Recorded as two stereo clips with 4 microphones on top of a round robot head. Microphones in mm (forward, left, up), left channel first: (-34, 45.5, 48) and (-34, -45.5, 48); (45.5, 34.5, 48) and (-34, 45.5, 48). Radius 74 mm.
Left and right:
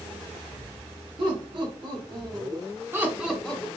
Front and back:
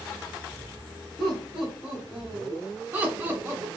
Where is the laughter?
100° right, 1.8 m; by 3.7 s 150° left, 0.8 m.